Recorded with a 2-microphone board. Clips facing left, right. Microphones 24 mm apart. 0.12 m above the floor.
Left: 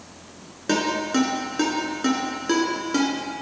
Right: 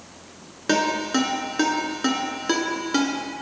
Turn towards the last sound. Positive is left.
turn(degrees=-15)  # may be behind; listen again after turning